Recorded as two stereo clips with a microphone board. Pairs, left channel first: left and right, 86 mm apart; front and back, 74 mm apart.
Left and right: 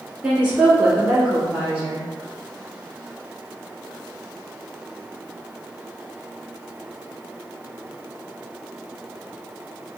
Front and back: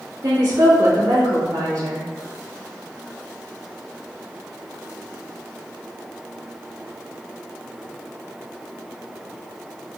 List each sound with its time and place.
0.2 s a woman speaking: 160° right, 1.8 m